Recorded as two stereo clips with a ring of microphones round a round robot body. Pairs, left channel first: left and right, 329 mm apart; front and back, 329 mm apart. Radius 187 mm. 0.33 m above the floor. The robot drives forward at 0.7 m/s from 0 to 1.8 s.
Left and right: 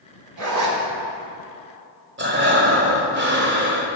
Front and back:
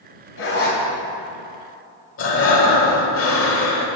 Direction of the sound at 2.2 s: 40° right.